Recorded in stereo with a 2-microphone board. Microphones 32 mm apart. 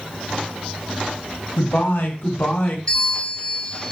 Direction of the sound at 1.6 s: 70° left (ahead or behind).